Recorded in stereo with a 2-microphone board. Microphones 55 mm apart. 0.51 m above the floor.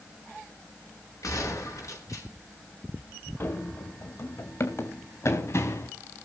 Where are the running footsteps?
45° left (ahead or behind), 2 m; by 5.9 s 55° left (ahead or behind), 4 m.